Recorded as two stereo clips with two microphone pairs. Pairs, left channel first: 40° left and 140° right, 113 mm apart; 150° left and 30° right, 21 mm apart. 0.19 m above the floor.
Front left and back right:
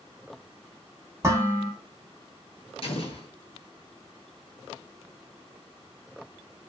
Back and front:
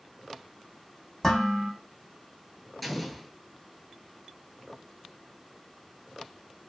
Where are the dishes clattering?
150° right, 0.9 m.